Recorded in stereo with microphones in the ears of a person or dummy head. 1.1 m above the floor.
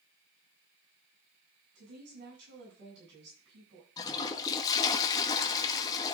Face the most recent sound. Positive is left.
turn(degrees=10)  # may be behind; listen again after turning